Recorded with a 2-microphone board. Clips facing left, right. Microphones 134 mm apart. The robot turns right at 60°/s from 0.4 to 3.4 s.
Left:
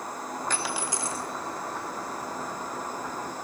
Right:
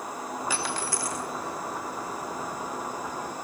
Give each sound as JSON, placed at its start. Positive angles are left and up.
{"t": 0.5, "sound": "a dropped coin", "azimuth_deg": -10, "distance_m": 1.4}